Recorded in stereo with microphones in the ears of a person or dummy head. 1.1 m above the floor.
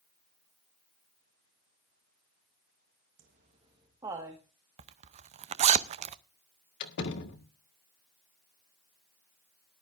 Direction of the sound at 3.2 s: 50° right (ahead or behind).